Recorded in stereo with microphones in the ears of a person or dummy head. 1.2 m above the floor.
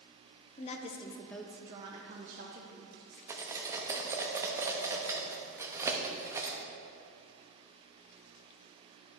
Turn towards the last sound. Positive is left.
turn(degrees=-15)  # may be behind; listen again after turning